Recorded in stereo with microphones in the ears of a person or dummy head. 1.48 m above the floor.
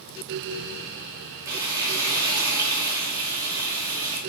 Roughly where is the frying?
Centre.